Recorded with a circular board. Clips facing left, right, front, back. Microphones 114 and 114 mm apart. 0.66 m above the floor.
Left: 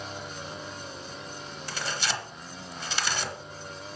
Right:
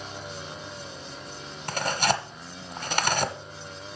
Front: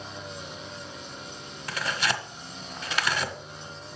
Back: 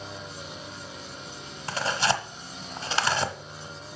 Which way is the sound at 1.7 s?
125° right.